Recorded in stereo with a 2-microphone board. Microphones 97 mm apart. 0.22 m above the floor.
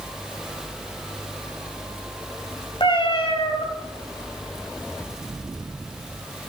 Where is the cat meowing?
60° left (ahead or behind), 1.8 m.